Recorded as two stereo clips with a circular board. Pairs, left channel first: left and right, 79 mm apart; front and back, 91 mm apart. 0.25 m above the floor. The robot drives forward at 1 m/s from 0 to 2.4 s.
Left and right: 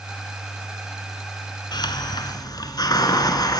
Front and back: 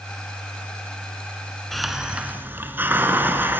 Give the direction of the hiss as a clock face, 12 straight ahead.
9 o'clock.